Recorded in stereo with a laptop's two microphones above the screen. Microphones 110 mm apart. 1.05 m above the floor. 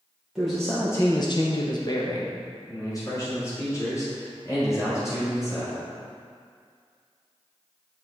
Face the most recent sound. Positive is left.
turn(degrees=25)  # may be behind; listen again after turning